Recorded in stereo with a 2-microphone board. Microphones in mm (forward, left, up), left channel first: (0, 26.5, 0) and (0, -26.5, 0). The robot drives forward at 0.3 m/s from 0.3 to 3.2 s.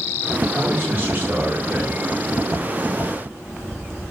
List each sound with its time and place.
0.5 s a man speaking: 35° right (ahead or behind), 1.2 m